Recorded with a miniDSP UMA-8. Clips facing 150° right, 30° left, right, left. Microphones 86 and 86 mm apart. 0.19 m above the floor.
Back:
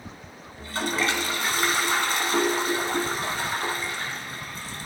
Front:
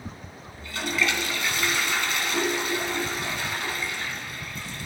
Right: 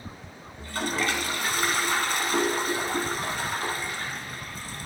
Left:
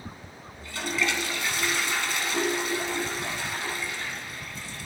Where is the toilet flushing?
110° right, 1.0 m.